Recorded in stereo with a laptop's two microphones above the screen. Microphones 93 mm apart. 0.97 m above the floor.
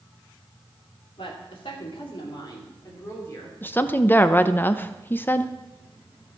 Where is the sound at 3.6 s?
20° left (ahead or behind), 0.6 m.